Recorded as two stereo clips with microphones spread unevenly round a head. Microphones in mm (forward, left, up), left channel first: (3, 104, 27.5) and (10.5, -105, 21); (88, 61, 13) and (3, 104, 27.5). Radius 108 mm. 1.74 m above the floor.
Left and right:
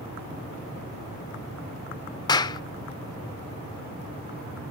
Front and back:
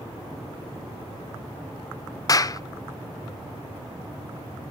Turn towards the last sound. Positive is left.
turn(degrees=25)